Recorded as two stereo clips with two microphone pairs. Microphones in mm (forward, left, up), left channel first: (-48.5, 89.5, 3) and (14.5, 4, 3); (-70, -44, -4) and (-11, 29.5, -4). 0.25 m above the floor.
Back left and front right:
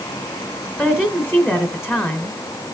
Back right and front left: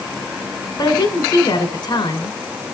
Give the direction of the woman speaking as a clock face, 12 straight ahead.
5 o'clock.